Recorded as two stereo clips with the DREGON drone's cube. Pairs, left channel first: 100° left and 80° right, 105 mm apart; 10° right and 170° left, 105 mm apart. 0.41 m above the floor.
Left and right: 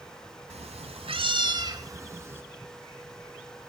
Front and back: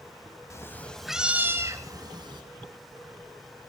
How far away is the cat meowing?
About 0.8 m.